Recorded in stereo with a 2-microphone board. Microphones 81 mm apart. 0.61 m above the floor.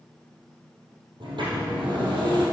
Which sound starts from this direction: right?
A sliding door, at 1.2 s.